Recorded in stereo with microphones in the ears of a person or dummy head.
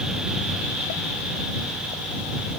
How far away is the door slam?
No door slam in this recording.